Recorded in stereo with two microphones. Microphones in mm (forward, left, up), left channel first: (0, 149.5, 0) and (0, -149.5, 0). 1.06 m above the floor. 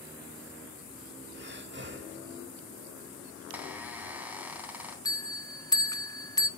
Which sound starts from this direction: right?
Breathing, at 1.3 s.